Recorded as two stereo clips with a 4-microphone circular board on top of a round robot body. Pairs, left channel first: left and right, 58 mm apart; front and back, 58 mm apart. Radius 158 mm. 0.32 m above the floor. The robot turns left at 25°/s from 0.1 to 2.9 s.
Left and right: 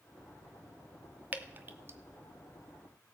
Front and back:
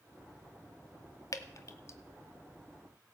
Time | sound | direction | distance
1.3 | dripping | 25° right | 0.7 m